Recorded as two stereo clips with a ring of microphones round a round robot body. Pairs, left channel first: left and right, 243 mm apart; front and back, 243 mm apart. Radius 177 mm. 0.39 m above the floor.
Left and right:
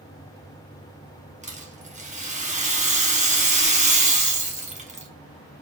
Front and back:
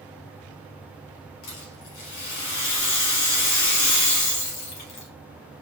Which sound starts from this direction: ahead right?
A rattle, at 1.4 s.